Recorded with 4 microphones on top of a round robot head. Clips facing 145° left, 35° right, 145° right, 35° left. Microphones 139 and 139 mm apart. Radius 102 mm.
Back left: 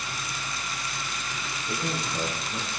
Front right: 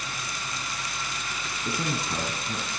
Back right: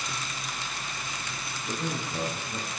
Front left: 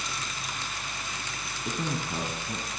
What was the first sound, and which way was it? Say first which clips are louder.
A man speaking: front right 2 dB, front left 1 dB; 5° left.